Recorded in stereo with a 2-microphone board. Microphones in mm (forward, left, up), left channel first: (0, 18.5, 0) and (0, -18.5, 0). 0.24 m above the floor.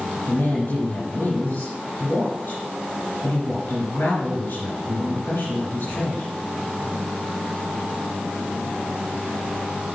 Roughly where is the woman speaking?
Left.